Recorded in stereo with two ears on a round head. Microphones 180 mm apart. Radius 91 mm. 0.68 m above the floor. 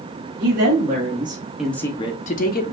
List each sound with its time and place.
0.4 s a woman speaking: 50° right (ahead or behind), 1.4 m; by 2.7 s 55° left (ahead or behind), 1.2 m